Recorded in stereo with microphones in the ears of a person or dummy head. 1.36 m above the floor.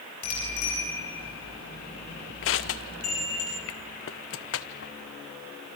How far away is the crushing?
About 0.7 m.